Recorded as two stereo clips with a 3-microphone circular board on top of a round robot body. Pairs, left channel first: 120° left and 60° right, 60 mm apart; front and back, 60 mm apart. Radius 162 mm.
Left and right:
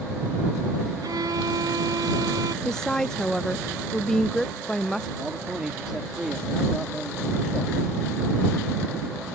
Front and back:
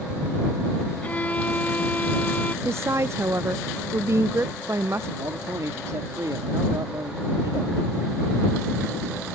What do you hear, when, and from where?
1.0 s a violin: 65° right
2.6 s a woman speaking: 160° right
5.2 s a man speaking: 140° right